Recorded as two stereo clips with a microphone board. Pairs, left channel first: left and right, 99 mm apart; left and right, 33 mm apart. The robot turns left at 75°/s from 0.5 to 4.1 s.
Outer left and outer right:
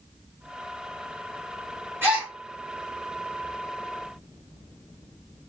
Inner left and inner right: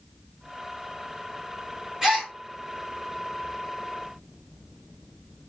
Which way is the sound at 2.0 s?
25° right (ahead or behind).